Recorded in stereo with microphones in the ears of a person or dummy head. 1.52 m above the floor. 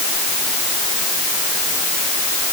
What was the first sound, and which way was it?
Only background noise.